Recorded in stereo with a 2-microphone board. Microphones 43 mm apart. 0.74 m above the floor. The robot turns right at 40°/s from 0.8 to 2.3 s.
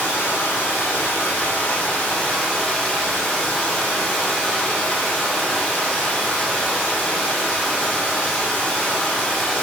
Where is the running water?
105° left, 1.5 m; by 9.6 s 165° left, 1.5 m.